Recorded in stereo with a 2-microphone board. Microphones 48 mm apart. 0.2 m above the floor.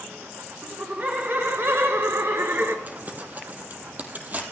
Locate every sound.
0.6 s laughter: 35° right (ahead or behind), 2.5 m; by 2.8 s 55° right (ahead or behind), 3 m
2.9 s crumpling: 40° right (ahead or behind), 2.5 m